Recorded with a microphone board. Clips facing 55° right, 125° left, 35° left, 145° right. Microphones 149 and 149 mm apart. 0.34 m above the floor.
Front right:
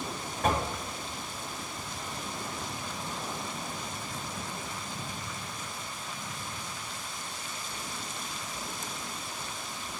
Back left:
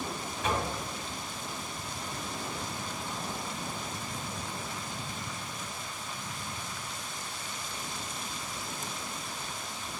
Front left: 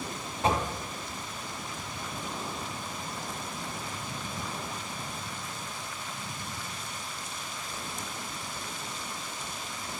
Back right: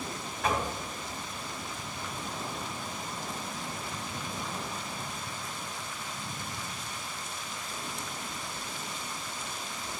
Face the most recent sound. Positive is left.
turn(degrees=-25)